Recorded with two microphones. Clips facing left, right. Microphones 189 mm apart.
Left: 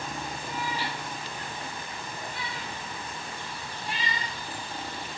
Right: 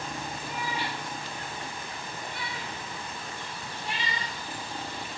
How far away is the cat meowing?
About 4.5 m.